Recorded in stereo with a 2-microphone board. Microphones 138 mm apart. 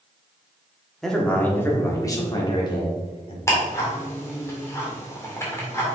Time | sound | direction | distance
1.0 | a man speaking | 5° left (ahead or behind) | 1.5 m
3.5 | ticking | 20° left (ahead or behind) | 2 m